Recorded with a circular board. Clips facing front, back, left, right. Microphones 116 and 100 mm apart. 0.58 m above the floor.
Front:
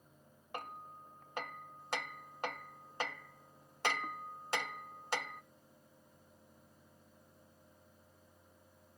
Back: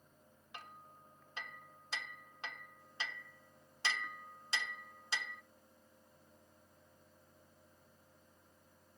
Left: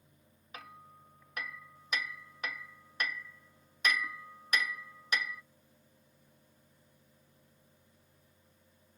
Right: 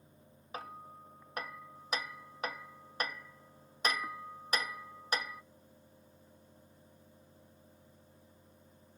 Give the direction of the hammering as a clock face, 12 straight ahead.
1 o'clock.